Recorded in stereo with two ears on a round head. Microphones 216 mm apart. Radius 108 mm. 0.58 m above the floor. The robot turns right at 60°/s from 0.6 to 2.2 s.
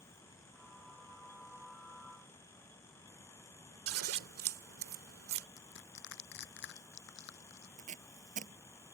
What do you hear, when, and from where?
3.9 s scissors: 60° right (ahead or behind)
5.6 s crushing: 50° left (ahead or behind)
7.8 s tape being pulled: 35° right (ahead or behind)